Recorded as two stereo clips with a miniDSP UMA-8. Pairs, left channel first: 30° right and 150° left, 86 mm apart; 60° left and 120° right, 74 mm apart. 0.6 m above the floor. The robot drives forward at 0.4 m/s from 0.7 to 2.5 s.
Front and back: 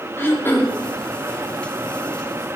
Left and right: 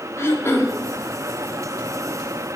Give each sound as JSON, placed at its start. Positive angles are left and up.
{"t": 0.2, "sound": "throat clearing", "azimuth_deg": 25, "distance_m": 1.0}